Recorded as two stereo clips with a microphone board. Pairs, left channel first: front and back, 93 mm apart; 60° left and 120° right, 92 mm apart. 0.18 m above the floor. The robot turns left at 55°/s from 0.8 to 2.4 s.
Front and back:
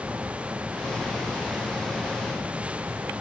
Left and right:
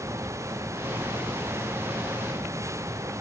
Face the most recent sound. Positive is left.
No sound to turn to.